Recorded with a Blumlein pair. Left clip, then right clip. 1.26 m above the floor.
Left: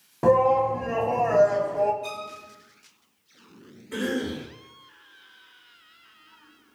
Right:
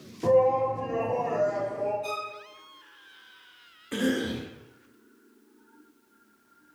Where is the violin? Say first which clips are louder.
Right 1 dB; 10° left, 0.6 m.